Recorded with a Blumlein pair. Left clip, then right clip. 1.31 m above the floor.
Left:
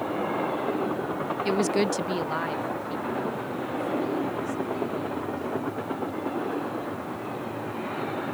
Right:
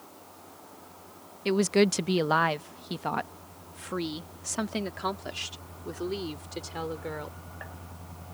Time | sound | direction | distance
1.4 | a woman speaking | straight ahead | ?